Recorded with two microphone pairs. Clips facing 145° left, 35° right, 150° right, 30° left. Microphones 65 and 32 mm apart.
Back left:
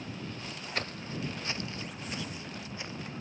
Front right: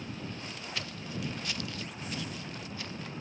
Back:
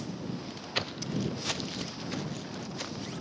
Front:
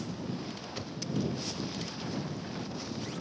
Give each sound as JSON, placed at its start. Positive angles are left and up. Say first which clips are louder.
{"t": 0.8, "sound": "footsteps", "louder": "back left 3 dB, back 3 dB", "azimuth_deg": -170}